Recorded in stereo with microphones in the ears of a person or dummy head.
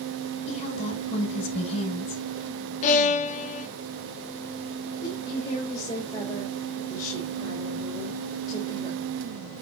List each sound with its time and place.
0.5 s a woman speaking: 40° left (ahead or behind), 7 m
2.8 s a violin: 45° left (ahead or behind), 0.9 m
5.0 s a woman speaking: 25° left (ahead or behind), 4 m